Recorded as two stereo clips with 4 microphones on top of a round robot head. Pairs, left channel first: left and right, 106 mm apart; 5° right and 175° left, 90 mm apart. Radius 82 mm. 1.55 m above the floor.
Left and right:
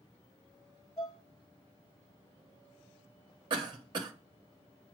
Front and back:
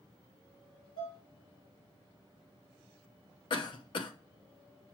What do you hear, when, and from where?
1.0 s dishes clattering: 20° left, 3.5 m
3.5 s a cough: 40° right, 0.8 m